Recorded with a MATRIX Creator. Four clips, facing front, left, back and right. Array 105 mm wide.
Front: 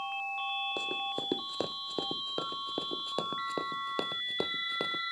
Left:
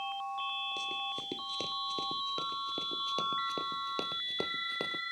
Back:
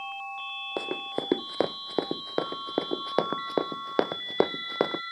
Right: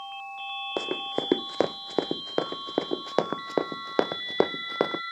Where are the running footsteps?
120° right; by 5.0 s 135° right.